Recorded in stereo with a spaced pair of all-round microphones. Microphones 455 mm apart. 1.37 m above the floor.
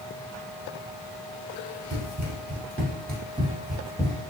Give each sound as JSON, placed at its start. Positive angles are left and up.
{"t": 1.9, "sound": "running footsteps", "side_deg": -45, "distance_m": 1.9}